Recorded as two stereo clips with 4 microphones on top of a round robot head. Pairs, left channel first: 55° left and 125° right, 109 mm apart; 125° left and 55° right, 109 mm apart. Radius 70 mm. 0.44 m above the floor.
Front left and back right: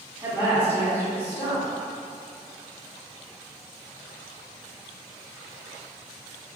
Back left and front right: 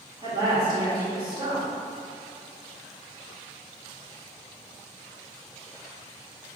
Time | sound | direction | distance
0.2 | a woman speaking | 75° right | 1.6 m